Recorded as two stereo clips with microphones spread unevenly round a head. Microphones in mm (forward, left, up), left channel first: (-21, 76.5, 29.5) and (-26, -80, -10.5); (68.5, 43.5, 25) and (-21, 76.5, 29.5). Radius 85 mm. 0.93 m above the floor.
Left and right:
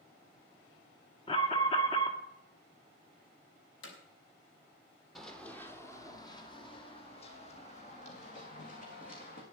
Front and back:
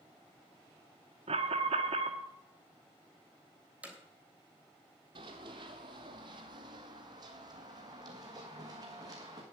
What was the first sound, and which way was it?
An alarm, 150° left.